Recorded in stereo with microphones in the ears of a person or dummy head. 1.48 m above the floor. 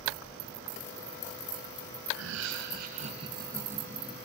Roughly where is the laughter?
Right.